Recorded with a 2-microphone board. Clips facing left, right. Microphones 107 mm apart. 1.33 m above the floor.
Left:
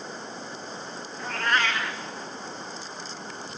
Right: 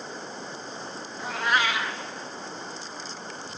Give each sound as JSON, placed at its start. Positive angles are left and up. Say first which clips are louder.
{"t": 1.2, "sound": "a cat meowing", "louder": "right 1 dB", "side_deg": -10, "distance_m": 0.7}